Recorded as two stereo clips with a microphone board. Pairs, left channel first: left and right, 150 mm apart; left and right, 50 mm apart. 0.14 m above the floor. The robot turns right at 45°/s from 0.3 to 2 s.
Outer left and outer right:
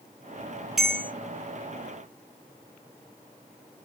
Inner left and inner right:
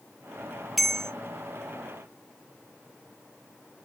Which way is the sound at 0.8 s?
5° right (ahead or behind).